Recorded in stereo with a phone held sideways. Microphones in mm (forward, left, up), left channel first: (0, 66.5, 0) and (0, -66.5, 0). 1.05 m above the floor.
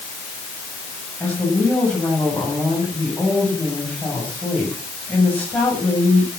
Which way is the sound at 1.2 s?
10° left (ahead or behind).